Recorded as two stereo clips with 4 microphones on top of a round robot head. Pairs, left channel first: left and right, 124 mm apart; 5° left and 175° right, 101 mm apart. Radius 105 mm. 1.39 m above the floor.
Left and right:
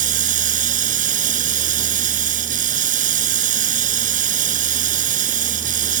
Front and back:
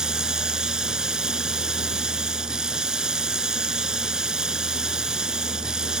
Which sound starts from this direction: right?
Running water, at 0.0 s.